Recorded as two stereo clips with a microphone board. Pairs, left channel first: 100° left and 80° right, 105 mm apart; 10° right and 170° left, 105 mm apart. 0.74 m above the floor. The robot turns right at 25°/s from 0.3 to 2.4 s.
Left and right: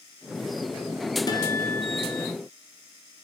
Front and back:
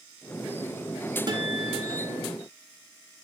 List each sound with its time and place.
1.3 s a guitar: 140° left, 1.6 m; by 2.3 s 165° left, 1.6 m